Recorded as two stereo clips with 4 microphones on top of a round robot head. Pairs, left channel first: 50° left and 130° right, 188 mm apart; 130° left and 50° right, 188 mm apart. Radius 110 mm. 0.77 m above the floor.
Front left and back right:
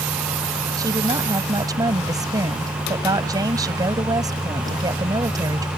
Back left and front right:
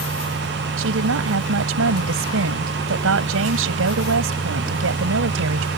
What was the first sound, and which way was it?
A woman speaking, 55° right.